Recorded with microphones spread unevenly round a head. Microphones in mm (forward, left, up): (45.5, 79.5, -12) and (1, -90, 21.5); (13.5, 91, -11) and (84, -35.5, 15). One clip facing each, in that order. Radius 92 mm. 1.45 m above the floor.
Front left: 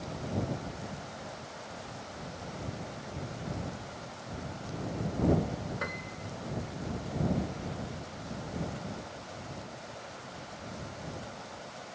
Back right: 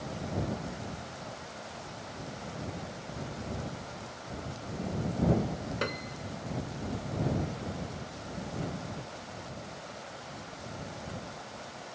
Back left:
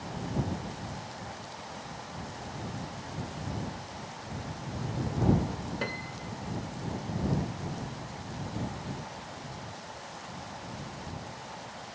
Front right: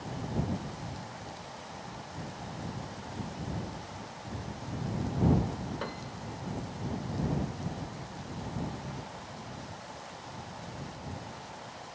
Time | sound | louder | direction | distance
5.8 | a piano | back right 4 dB, back left 2 dB | 160° right | ?